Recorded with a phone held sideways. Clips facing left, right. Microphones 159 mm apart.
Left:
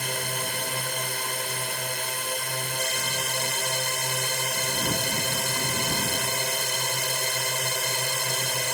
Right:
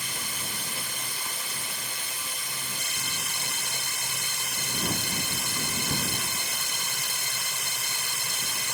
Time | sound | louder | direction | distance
0.0 | a drone | left 8 dB | 60° left (ahead or behind) | ?